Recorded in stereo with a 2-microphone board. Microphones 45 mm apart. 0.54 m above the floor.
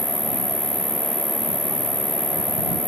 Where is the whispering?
No whispering in this recording.